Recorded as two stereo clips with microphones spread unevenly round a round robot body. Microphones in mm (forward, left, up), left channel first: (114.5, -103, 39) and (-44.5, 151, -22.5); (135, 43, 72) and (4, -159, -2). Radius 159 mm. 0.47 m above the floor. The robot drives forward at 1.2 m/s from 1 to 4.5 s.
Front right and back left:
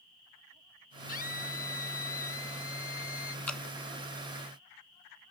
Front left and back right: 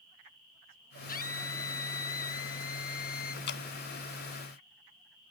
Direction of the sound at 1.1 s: 5° left.